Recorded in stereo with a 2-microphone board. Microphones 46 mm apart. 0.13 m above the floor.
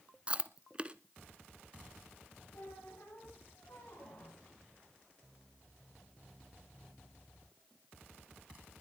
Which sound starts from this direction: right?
Chewing, at 0.3 s.